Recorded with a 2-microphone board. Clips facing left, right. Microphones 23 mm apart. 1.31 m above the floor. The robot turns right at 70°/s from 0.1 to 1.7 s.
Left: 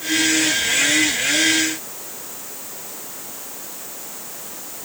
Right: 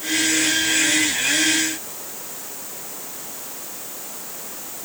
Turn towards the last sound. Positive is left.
No sound to turn to.